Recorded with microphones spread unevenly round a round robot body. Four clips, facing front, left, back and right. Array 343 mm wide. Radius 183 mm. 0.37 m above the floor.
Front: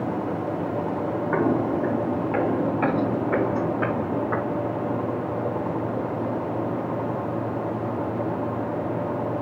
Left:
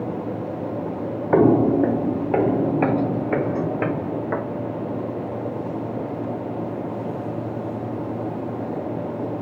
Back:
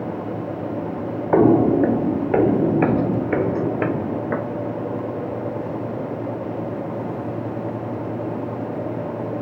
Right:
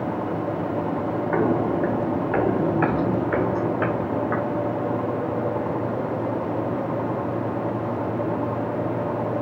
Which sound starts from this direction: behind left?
Footsteps, at 1.3 s.